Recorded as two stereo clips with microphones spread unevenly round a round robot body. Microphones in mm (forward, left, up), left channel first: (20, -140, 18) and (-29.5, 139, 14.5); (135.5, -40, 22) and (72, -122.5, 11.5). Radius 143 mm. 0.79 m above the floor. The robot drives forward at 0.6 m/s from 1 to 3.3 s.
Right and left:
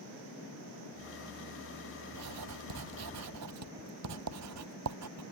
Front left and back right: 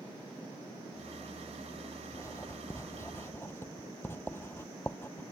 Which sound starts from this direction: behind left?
Writing, at 2.1 s.